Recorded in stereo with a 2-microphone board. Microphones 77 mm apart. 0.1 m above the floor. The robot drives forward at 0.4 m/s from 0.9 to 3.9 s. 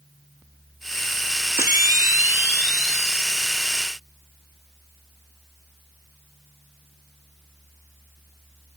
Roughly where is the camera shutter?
Right.